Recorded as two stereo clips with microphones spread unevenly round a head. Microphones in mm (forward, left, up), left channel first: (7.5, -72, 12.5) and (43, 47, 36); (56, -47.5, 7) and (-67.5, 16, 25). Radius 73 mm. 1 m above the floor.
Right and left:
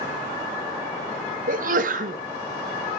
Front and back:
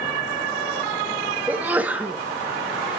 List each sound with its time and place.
1.5 s a sneeze: 70° left, 1.5 m